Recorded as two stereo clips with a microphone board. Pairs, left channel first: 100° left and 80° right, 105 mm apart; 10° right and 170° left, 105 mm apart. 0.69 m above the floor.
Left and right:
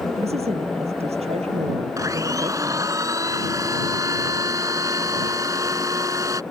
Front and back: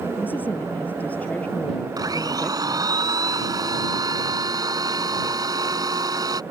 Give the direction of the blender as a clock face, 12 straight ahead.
5 o'clock.